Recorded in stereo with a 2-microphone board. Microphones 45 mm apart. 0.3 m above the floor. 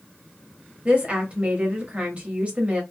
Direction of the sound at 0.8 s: 30° right (ahead or behind).